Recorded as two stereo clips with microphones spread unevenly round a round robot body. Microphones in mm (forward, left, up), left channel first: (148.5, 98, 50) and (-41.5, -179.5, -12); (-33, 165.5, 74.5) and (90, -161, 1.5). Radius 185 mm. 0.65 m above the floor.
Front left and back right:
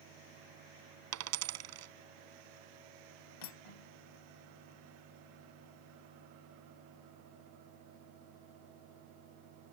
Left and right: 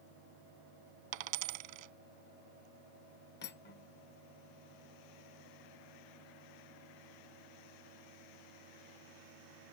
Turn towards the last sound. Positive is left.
turn(degrees=45)